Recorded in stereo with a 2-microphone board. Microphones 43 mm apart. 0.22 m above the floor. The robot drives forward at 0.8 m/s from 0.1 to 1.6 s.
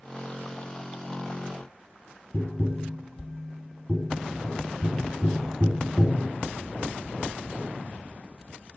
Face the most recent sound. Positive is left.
turn(degrees=45)  # may be behind; listen again after turning